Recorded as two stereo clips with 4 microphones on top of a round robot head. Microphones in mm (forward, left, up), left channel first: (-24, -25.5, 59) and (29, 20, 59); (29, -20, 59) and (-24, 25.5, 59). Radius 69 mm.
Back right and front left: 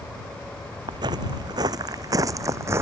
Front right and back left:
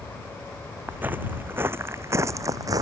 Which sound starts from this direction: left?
Footsteps, at 0.9 s.